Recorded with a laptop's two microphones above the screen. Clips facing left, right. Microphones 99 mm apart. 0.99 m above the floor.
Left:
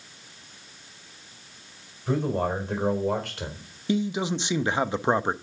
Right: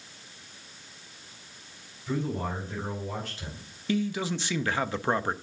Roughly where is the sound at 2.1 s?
Left.